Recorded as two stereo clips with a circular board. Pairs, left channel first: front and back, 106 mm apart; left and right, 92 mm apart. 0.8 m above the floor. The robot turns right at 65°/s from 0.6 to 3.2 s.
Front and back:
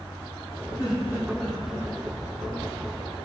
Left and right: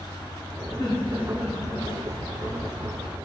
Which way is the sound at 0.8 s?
40° left.